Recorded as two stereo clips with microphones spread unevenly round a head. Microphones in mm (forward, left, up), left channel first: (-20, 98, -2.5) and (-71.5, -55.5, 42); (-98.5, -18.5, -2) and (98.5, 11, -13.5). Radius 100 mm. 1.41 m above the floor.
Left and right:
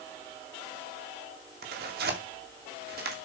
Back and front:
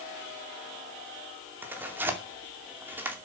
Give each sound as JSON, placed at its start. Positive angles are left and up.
{"t": 1.6, "sound": "tearing paper", "azimuth_deg": -70, "distance_m": 2.5}